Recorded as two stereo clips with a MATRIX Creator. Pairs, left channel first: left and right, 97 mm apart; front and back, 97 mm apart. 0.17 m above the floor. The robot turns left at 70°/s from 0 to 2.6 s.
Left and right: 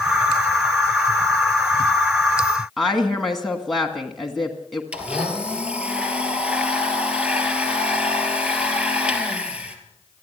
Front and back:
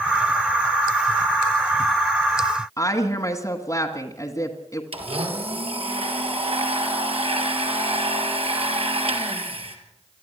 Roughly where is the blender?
Behind.